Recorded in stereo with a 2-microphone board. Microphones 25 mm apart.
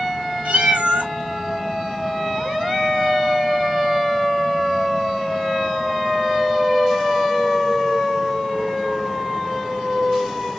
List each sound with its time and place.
0.5 s a cat meowing: 80° right, 1.9 m